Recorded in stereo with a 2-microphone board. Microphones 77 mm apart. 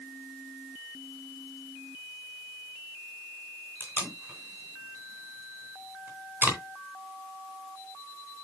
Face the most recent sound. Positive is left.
turn(degrees=-25)  # may be behind; listen again after turning